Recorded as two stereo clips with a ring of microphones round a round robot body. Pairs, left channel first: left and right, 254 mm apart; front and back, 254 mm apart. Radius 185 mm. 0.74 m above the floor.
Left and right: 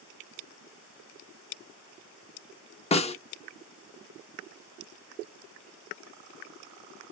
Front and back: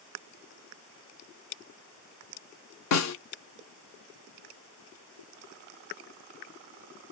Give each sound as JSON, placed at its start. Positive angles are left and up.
{"t": 2.9, "sound": "a snare drum", "azimuth_deg": 20, "distance_m": 0.6}